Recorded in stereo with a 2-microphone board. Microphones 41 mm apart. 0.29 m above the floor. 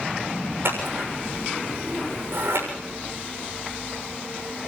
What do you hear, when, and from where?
0.7 s scissors: 70° right (ahead or behind), 6.5 m